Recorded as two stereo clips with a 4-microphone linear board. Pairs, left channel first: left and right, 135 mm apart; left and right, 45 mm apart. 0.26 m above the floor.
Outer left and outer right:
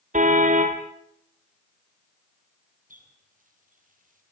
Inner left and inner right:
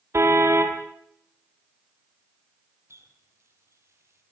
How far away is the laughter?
I don't hear laughter.